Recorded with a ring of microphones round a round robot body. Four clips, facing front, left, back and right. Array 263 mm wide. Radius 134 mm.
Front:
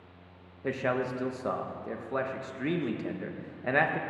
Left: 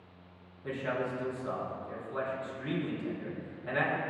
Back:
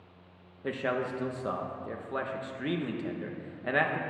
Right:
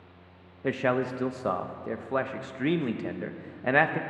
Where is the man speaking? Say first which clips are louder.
Right 7 dB, front 1 dB; 80° right, 0.6 m.